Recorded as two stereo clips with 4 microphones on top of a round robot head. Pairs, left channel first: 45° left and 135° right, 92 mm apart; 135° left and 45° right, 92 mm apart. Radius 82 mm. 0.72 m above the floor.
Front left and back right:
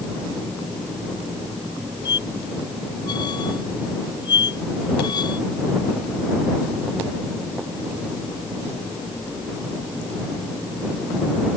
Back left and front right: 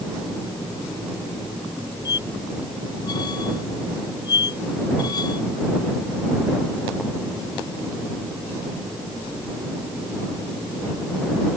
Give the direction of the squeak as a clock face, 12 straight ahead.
9 o'clock.